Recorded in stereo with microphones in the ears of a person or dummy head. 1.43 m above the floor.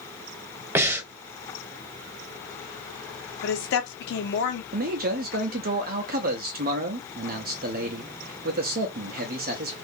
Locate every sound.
0.8 s breathing: 10° right (ahead or behind), 0.5 m
3.4 s a woman speaking: 60° left (ahead or behind), 0.9 m
4.7 s a man speaking: 50° right (ahead or behind), 0.6 m